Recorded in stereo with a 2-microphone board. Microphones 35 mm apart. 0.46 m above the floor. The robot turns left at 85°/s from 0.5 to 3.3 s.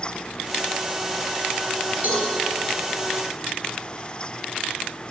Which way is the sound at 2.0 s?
55° right (ahead or behind).